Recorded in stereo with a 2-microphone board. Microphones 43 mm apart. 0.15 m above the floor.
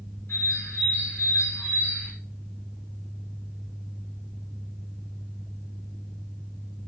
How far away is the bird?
About 6 m.